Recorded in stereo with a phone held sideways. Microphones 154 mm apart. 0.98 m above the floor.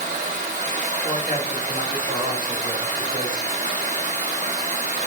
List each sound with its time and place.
0.0 s running water: 55° right (ahead or behind), 1.2 m
1.0 s a man speaking: 25° right (ahead or behind), 1.7 m